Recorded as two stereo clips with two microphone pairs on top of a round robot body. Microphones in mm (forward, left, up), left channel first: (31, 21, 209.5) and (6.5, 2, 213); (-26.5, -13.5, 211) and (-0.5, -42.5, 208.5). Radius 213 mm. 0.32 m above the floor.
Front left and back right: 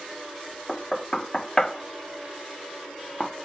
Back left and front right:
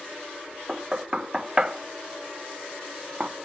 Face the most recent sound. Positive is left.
turn(degrees=0)